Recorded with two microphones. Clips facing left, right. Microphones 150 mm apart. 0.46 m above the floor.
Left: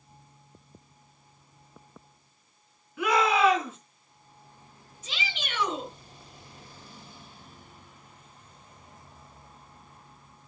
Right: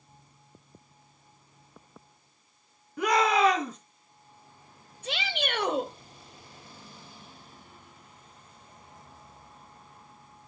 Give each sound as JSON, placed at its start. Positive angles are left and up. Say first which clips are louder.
{"t": 3.0, "sound": "a shout", "louder": "even", "side_deg": -40, "distance_m": 4.0}
{"t": 5.0, "sound": "a shout", "louder": "right 6 dB", "side_deg": -60, "distance_m": 1.7}